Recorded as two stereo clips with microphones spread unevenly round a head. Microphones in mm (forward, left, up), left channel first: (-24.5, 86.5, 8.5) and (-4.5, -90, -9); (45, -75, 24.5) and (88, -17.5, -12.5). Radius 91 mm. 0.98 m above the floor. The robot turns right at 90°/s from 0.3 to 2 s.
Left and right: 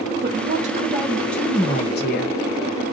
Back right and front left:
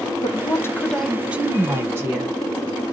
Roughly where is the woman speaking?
Right.